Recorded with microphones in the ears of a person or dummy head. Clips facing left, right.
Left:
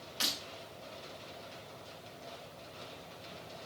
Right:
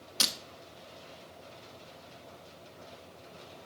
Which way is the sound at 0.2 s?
65° right (ahead or behind).